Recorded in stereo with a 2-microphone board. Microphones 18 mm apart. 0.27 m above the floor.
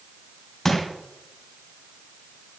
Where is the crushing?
25° left (ahead or behind), 2.5 m.